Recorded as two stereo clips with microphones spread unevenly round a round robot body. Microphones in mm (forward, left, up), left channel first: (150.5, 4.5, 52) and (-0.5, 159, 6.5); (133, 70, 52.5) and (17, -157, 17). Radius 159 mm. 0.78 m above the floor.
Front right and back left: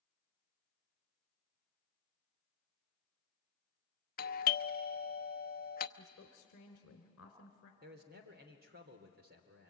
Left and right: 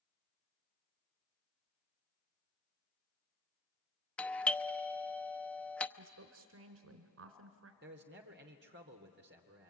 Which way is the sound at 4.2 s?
35° right.